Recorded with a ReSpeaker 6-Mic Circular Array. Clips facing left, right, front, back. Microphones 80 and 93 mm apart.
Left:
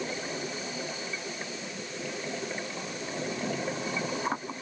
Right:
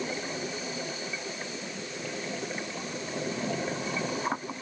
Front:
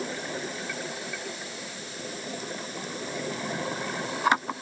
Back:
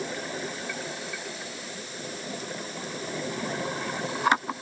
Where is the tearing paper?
I don't hear tearing paper.